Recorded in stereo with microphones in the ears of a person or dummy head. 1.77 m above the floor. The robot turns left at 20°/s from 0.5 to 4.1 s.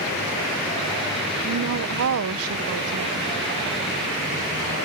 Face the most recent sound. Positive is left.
turn(degrees=-125)